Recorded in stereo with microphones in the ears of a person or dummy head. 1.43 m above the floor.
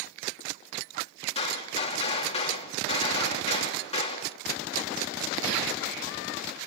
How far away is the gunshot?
About 3 m.